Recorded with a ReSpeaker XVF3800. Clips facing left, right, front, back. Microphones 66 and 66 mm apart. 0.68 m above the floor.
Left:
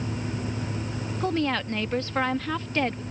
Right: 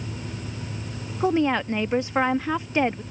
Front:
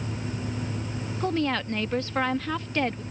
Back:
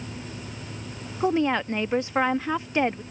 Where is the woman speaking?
135° right.